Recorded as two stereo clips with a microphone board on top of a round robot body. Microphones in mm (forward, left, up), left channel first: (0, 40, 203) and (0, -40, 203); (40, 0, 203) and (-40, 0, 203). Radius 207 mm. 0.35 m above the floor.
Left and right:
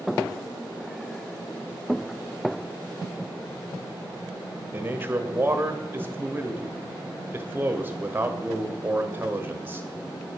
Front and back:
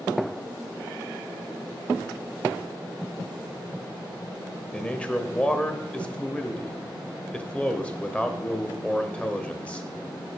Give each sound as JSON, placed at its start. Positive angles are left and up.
{"t": 4.7, "sound": "a man speaking", "azimuth_deg": -60, "distance_m": 1.3}